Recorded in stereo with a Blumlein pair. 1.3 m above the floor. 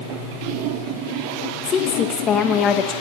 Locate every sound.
1.6 s a woman speaking: 25° left, 1.3 m